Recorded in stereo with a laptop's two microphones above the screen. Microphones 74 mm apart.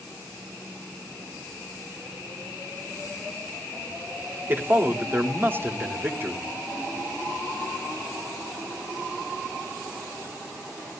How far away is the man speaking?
About 2.5 m.